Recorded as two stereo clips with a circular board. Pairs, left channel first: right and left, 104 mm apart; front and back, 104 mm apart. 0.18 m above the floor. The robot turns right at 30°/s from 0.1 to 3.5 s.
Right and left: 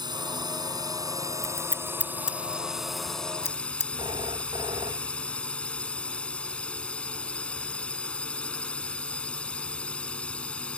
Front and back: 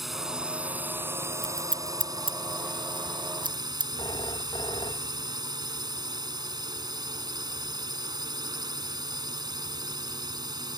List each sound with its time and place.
0.0 s a drone: 95° left; by 10.8 s 165° right
1.4 s scissors: 145° left; by 3.9 s 150° right
4.0 s a phone ringing: 45° left